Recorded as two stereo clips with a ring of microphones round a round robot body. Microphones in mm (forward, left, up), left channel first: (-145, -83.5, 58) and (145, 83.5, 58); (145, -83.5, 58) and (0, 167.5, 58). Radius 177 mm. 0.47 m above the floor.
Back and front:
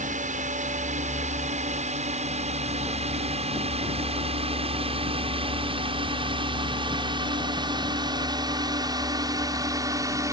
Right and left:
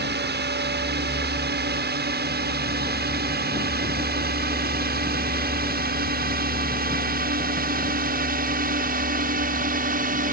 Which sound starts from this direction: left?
A drone, at 0.0 s.